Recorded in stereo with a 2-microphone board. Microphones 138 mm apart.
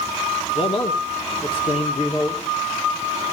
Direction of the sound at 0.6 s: 45° left (ahead or behind).